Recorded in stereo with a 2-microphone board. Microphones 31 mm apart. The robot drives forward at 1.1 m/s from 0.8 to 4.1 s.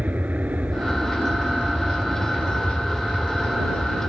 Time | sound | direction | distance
0.0 | an aircraft | 55° right (ahead or behind) | ?